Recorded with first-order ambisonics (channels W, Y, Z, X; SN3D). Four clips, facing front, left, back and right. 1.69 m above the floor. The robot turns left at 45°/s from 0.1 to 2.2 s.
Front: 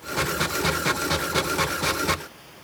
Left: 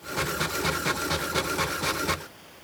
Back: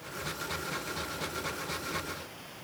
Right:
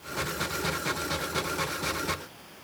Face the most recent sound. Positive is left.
No sound to turn to.